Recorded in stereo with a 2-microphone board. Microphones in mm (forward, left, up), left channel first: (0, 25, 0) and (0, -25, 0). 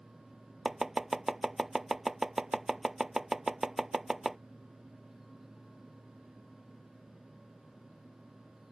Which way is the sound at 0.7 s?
10° right (ahead or behind).